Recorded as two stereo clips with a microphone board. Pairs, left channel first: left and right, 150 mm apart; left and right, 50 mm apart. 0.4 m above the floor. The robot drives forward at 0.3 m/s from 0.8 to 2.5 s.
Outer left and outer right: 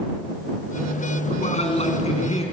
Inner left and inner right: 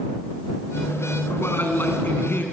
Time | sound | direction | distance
1.3 | a man speaking | 45° left (ahead or behind) | 4 m